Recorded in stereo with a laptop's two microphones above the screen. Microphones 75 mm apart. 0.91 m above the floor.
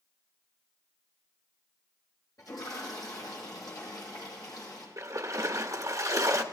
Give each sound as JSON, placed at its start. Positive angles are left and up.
{"t": 2.4, "sound": "a toilet flushing", "side_deg": 55, "distance_m": 9.0}
{"t": 5.0, "sound": "a splash", "side_deg": -50, "distance_m": 1.3}